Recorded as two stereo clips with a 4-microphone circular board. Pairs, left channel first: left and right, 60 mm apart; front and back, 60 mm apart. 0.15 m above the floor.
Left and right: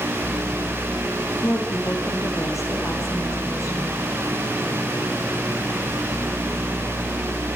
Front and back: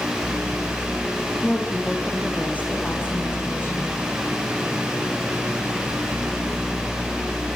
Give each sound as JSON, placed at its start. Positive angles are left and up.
{"t": 1.4, "sound": "a woman speaking", "azimuth_deg": 65, "distance_m": 7.0}